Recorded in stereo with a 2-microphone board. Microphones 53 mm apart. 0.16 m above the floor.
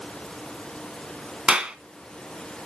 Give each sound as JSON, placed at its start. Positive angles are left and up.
{"t": 1.5, "sound": "a clap", "side_deg": -15, "distance_m": 1.0}